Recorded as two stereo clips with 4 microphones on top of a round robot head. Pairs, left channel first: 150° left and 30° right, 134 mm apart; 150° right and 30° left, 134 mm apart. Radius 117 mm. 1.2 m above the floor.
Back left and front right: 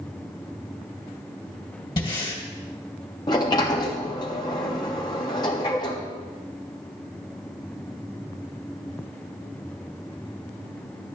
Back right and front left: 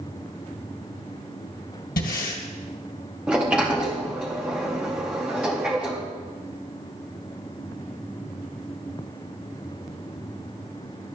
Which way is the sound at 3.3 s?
110° left.